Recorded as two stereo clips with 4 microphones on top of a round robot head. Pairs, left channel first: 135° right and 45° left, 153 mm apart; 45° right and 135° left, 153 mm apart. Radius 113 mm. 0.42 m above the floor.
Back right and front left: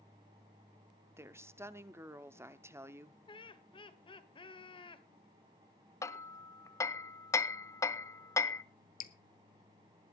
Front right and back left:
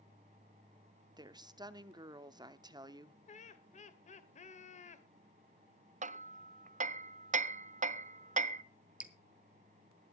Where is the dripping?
145° right, 1.2 m.